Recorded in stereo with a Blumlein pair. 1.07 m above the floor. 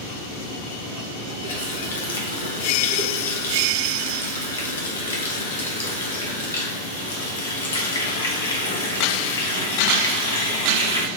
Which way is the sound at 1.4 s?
70° left.